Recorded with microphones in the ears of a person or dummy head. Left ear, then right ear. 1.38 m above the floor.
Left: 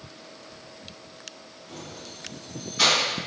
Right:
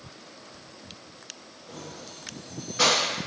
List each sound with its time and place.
1.7 s keys jangling: 30° right (ahead or behind), 1.5 m